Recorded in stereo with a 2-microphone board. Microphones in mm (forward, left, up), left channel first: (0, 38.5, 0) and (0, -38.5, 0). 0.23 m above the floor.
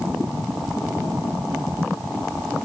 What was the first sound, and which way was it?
Only background noise.